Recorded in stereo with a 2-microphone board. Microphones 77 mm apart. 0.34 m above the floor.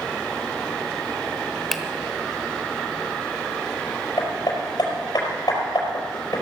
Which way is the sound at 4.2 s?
60° left (ahead or behind).